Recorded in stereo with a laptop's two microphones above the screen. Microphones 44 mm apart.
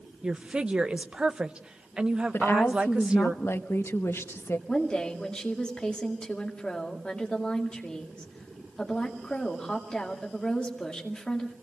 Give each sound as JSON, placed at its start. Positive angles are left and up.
{"t": 0.2, "sound": "a woman speaking", "side_deg": -20, "distance_m": 0.8}
{"t": 2.3, "sound": "a woman speaking", "side_deg": 75, "distance_m": 0.9}
{"t": 4.7, "sound": "a woman speaking", "side_deg": 20, "distance_m": 2.0}